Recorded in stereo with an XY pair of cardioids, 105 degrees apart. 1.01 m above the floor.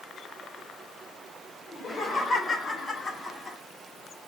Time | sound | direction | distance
1.7 | laughter | 25° left | 3.5 m